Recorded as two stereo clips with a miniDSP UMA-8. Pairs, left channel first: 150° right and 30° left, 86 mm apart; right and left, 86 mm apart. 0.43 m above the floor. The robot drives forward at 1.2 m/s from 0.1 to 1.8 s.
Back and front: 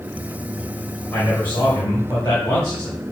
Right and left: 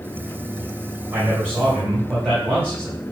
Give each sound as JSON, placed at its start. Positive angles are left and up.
{"t": 1.1, "sound": "a man speaking", "azimuth_deg": 145, "distance_m": 2.5}